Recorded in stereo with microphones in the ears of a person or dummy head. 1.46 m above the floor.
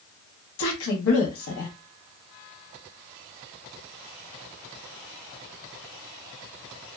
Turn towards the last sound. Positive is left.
turn(degrees=75)  # may be behind; listen again after turning